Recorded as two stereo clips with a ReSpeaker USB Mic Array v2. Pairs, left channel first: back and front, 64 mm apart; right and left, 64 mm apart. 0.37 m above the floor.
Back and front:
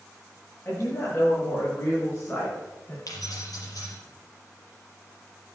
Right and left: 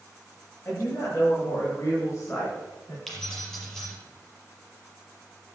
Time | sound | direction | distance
0.7 | a woman speaking | 135° right | 7 m
3.1 | keys jangling | 170° right | 6 m